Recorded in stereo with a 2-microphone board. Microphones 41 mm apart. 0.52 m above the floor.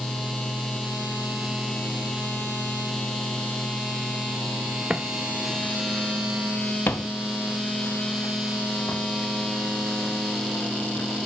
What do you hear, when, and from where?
4.9 s footsteps: 30° right (ahead or behind), 0.6 m; by 11.1 s 80° left, 4 m